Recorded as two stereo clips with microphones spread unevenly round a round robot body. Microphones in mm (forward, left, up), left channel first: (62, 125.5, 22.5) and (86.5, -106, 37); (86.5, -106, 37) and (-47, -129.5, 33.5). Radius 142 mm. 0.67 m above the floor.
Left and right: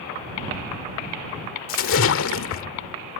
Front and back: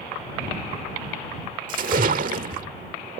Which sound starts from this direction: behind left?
A splash, at 1.7 s.